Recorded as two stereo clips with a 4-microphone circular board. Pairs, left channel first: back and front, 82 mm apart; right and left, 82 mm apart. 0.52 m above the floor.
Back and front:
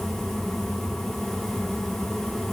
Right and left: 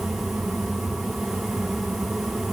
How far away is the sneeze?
I don't hear a sneeze.